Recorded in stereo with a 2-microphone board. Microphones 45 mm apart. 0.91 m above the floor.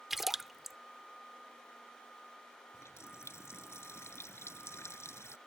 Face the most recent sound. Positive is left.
turn(degrees=80)